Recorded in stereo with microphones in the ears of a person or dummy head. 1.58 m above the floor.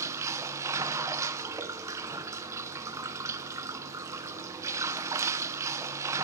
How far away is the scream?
I don't hear a scream.